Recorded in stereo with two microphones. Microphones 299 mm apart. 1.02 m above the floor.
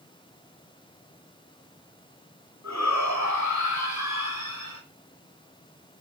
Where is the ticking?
I don't hear ticking.